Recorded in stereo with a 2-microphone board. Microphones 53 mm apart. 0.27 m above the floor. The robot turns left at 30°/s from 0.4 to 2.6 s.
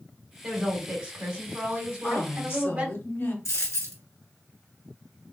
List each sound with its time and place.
0.4 s a woman speaking: 5° right (ahead or behind), 1.6 m; by 3.0 s 25° right (ahead or behind), 1.6 m
2.0 s a woman speaking: 50° left (ahead or behind), 1.7 m; by 3.4 s 55° left (ahead or behind), 1.7 m
3.5 s a dropped coin: 75° left (ahead or behind), 1.3 m